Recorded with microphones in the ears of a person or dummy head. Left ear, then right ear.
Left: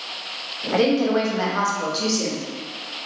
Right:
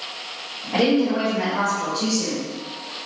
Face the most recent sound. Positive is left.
turn(degrees=55)  # may be behind; listen again after turning